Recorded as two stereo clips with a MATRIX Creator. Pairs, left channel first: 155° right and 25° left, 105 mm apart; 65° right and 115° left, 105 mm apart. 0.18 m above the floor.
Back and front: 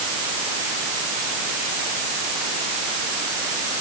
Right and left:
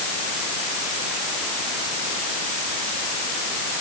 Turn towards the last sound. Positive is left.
No sound to turn to.